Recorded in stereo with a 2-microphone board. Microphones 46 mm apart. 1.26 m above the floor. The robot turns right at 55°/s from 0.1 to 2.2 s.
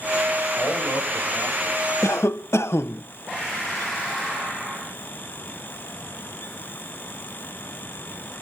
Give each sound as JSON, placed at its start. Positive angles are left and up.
{"t": 0.6, "sound": "a man speaking", "azimuth_deg": 95, "distance_m": 5.5}
{"t": 2.0, "sound": "a cough", "side_deg": 85, "distance_m": 0.5}